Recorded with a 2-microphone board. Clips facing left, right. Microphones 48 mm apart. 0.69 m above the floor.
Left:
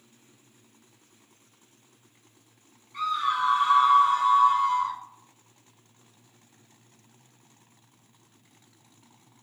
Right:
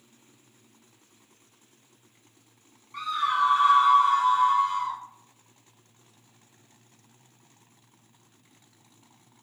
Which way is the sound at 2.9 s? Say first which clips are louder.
Right 1 dB; 65° right (ahead or behind).